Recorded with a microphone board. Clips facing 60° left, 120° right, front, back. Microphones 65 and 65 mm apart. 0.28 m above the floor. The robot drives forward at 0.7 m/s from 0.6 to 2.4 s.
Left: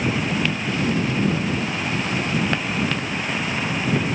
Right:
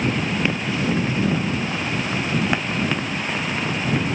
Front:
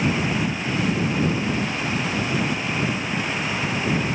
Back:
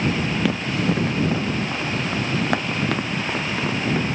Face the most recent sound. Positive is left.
turn(degrees=155)